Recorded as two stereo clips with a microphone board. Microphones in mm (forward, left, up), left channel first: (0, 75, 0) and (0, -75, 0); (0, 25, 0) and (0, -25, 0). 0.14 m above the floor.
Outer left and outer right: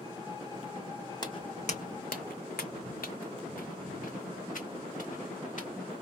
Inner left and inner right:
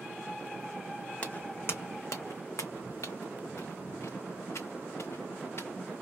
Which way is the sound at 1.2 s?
30° left (ahead or behind).